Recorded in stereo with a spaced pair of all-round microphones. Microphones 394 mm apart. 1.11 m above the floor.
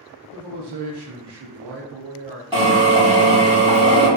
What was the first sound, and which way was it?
A man speaking, 85° right.